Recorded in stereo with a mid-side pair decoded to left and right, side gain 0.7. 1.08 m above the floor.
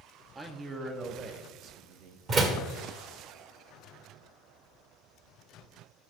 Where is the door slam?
40° right, 1.8 m.